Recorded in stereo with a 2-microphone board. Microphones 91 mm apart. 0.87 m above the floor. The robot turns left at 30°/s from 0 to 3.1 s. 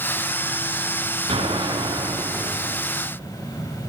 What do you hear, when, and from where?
1.3 s an explosion: 95° right, 8 m; by 2.9 s 140° right, 8 m